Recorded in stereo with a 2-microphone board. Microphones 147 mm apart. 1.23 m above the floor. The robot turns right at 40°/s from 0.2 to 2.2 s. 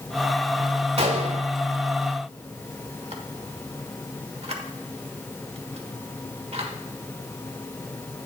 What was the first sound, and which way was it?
A gunshot, 45° right (ahead or behind).